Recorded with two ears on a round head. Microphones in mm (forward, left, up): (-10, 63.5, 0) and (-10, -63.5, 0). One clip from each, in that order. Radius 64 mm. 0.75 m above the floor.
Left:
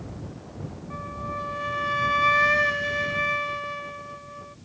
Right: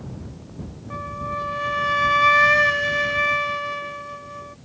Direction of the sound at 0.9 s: 25° right (ahead or behind).